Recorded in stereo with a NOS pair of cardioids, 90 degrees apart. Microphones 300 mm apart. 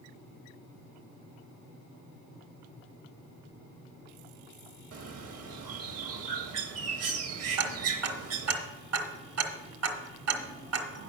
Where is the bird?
50° right, 1.2 m.